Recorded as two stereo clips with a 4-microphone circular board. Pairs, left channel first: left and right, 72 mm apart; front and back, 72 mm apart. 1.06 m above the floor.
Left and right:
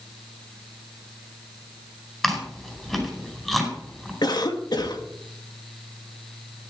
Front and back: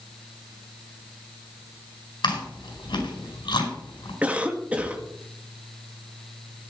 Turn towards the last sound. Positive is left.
turn(degrees=110)